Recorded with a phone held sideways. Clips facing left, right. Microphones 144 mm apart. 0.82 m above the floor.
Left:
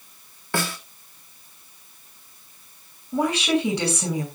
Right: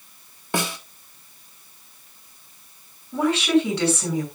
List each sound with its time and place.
0.5 s a snare drum: 20° right (ahead or behind), 1.8 m
3.1 s a woman speaking: 15° left (ahead or behind), 7.5 m